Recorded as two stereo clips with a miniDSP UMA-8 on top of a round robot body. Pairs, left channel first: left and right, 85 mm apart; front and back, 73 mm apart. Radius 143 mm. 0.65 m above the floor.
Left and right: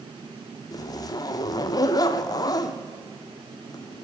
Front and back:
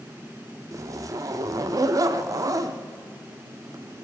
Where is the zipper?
135° left, 0.6 m.